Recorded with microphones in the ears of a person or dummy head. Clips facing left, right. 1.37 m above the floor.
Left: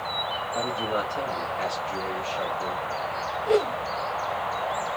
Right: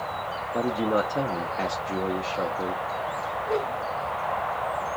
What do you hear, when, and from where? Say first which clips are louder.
0.5 s a man speaking: right 5 dB; 65° right (ahead or behind), 1.0 m
3.5 s a whoosh: left 6 dB; 35° left (ahead or behind), 0.8 m